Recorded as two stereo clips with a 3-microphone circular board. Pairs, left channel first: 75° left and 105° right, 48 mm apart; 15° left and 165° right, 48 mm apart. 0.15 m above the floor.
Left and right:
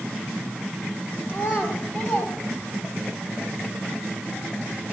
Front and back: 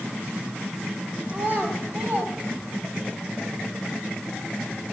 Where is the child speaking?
135° left, 3 m; by 3.1 s 155° left, 5.5 m.